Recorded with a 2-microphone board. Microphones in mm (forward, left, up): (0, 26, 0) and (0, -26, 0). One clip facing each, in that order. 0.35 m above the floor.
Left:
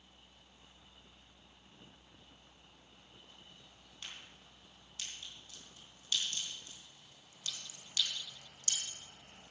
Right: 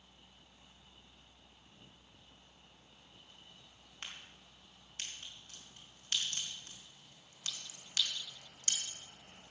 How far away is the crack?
About 4 m.